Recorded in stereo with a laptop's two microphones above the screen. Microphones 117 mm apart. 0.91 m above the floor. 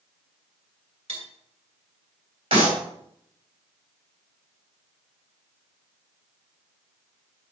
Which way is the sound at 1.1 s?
55° right (ahead or behind).